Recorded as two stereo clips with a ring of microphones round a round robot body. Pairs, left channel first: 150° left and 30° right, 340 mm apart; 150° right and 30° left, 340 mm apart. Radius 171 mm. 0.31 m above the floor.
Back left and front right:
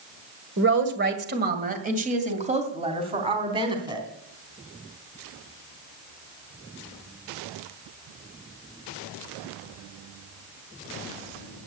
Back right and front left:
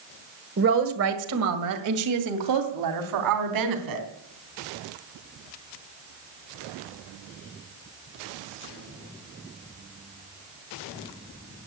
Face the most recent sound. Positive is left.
turn(degrees=45)